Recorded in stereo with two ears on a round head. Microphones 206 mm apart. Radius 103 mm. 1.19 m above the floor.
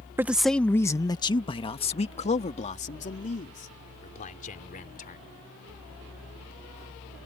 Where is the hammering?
I don't hear hammering.